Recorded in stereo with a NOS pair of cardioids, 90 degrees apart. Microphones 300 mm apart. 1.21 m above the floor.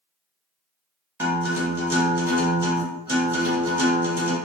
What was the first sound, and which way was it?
A guitar, 5° right.